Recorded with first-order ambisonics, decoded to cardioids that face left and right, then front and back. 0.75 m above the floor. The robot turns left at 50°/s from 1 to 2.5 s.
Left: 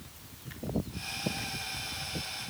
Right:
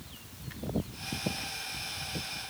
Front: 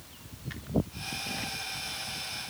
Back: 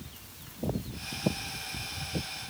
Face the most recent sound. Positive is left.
No sound to turn to.